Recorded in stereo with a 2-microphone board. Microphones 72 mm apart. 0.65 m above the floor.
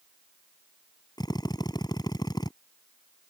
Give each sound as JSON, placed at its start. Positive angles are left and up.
{"t": 1.2, "sound": "a drill", "side_deg": 70}